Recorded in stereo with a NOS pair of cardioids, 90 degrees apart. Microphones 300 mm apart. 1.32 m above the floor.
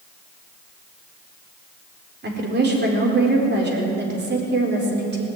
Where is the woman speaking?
35° right, 4.5 m.